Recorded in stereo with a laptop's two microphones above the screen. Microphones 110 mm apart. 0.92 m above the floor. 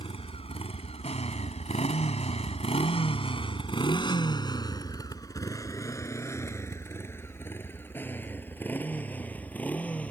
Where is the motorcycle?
60° left (ahead or behind); by 10.1 s 10° left (ahead or behind).